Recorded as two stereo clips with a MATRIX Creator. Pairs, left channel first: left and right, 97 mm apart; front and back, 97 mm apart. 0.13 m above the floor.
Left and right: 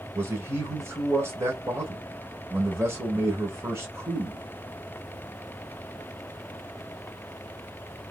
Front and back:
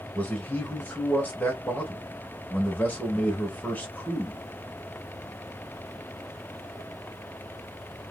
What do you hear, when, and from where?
0.1 s a man speaking: 55° right, 1.9 m